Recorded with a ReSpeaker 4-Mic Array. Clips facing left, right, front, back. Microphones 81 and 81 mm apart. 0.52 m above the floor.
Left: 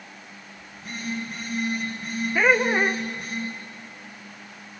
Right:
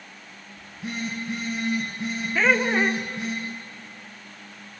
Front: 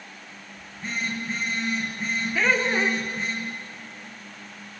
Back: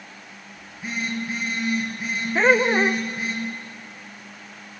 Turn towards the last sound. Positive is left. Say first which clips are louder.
# left 1 dB, back 6 dB
turn(degrees=160)